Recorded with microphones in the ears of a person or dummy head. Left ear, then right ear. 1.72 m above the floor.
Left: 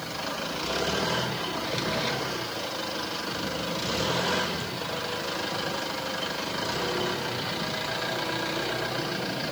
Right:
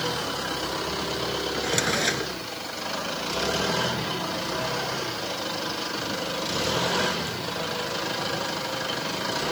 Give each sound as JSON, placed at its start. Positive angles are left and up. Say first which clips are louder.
{"t": 1.5, "sound": "a drawer", "louder": "right 6 dB", "side_deg": -40}